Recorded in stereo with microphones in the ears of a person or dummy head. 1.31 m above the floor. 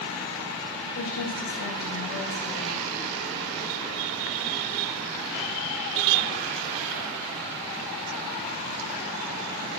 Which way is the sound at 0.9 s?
75° left (ahead or behind).